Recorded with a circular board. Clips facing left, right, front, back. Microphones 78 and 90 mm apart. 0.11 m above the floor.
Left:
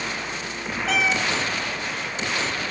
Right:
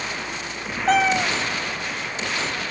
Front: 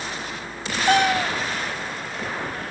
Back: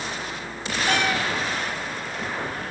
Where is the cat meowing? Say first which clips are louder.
Right 5 dB, front 6 dB; 45° right, 0.7 m.